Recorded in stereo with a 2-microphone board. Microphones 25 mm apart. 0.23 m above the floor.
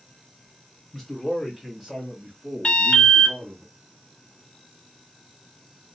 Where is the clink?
I don't hear a clink.